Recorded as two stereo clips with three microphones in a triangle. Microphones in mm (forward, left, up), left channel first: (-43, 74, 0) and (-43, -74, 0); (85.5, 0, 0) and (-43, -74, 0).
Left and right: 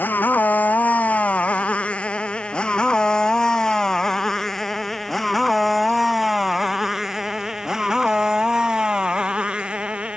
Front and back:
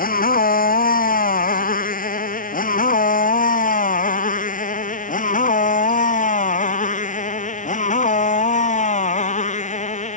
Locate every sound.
0.0 s a motorcycle: 10° left; by 10.2 s 10° right